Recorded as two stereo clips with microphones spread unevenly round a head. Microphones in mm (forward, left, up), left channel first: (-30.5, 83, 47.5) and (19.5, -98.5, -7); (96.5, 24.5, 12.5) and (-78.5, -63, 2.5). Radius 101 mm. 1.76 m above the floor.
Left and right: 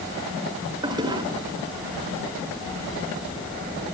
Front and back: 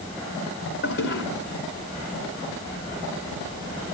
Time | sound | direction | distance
0.8 | a toilet flushing | straight ahead | 3 m